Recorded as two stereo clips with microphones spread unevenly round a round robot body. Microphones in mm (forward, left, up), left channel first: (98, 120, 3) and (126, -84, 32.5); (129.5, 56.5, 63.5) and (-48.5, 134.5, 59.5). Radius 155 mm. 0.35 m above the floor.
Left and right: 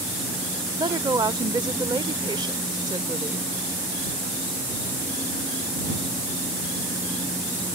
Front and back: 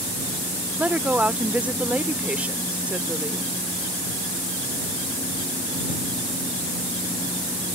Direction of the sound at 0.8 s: 140° right.